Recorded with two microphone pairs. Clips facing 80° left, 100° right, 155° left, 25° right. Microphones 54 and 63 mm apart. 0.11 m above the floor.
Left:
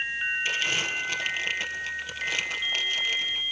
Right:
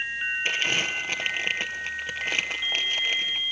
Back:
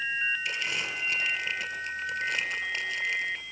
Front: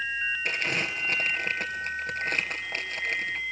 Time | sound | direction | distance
0.5 | crumpling | 55° right | 3 m